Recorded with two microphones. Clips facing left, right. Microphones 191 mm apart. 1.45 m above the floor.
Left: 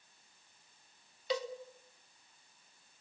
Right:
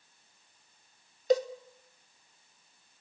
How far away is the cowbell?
About 0.7 m.